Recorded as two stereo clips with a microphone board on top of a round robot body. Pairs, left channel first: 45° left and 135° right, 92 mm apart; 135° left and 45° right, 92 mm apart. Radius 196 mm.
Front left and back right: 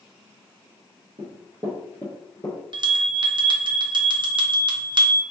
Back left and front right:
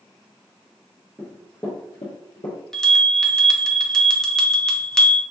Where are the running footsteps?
120° right, 1.1 m; by 2.6 s 90° left, 1.2 m.